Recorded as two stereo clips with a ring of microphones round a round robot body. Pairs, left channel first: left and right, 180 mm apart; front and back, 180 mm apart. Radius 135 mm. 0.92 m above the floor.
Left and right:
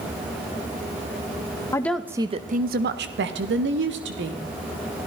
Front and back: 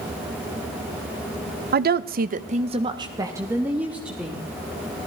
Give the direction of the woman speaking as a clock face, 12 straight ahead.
7 o'clock.